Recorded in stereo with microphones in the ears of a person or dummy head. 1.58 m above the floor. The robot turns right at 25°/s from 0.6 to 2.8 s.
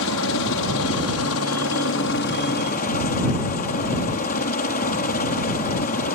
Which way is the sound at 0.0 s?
75° left.